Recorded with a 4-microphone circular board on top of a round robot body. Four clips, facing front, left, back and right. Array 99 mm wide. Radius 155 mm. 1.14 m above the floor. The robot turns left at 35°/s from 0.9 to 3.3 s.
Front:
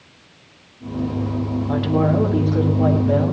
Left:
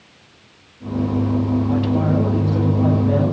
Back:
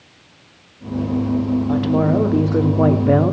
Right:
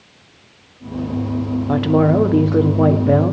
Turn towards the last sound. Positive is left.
turn(degrees=-150)